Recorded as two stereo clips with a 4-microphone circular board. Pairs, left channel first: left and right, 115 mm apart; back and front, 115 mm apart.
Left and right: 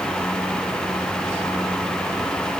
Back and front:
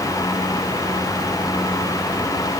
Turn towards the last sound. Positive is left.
No sound to turn to.